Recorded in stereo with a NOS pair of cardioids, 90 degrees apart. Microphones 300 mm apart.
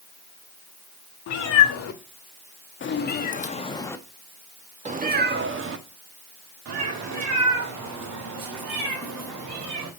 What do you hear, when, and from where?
1.3 s a cat meowing: 65° left, 1.9 m; by 9.9 s 80° right, 3 m